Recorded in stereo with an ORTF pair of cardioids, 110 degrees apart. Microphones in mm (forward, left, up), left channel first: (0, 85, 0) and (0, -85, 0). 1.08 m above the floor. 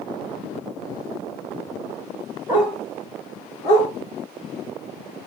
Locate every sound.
2.5 s a dog barking: 10° right, 2 m; by 3.9 s 60° left, 1.2 m